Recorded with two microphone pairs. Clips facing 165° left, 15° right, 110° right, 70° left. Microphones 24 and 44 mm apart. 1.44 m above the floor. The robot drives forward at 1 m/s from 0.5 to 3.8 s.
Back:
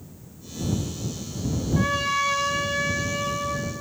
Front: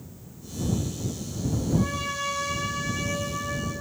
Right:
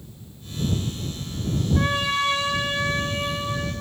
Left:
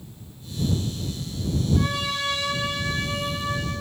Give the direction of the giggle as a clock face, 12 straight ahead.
I don't hear a giggle.